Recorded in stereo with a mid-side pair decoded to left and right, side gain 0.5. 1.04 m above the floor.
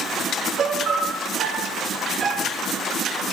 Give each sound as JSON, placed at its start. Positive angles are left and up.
{"t": 0.6, "sound": "a piano", "azimuth_deg": -50, "distance_m": 1.8}